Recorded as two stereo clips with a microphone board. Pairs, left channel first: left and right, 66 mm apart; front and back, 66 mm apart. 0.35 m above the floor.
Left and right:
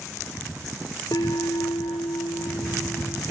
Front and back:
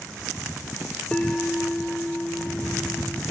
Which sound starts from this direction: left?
A bell, at 1.1 s.